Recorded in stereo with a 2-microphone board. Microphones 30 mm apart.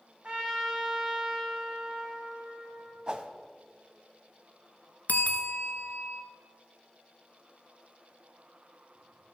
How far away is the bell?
About 1.1 m.